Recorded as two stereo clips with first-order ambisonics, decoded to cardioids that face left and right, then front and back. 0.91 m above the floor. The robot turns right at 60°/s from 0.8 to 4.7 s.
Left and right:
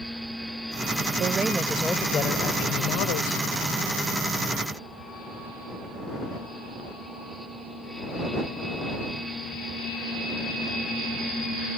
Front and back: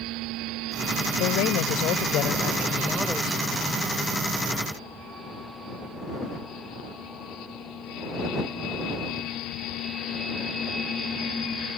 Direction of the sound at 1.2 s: 30° right.